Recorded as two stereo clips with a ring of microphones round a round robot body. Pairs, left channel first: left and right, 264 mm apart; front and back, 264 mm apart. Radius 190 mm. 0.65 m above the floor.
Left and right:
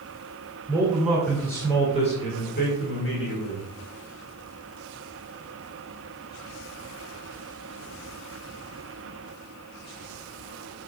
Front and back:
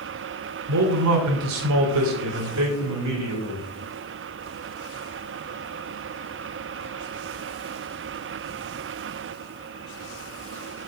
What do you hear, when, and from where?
0.7 s a man speaking: 170° right, 2.5 m; by 3.7 s 135° left, 3 m